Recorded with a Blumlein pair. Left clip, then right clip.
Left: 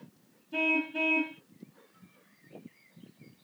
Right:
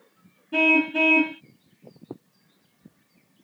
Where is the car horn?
25° right.